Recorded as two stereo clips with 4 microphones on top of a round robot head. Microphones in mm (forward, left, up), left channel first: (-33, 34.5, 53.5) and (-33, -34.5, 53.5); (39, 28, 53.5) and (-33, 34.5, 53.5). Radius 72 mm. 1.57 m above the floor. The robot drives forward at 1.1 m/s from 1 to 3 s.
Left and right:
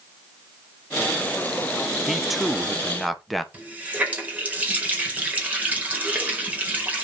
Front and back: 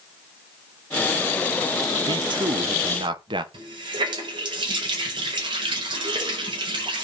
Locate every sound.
2.1 s a man speaking: 175° right, 0.7 m; by 3.4 s straight behind, 1.7 m
3.5 s a running tap: 155° right, 5 m